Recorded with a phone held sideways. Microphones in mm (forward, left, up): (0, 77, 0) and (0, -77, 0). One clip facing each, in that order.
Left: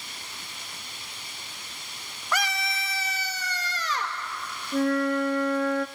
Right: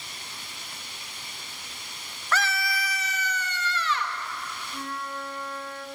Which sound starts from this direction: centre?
A scream, at 2.3 s.